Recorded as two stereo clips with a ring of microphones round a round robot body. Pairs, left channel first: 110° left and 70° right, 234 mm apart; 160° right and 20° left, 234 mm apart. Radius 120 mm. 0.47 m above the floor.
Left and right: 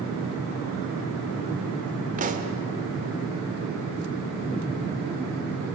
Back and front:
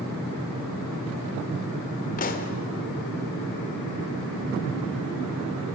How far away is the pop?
About 1.6 m.